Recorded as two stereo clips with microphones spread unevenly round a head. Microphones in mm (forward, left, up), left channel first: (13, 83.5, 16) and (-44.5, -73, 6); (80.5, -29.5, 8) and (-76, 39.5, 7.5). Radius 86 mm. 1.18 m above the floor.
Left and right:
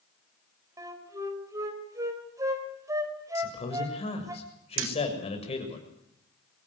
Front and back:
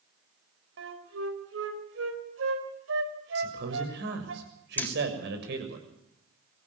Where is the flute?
175° left, 4 m.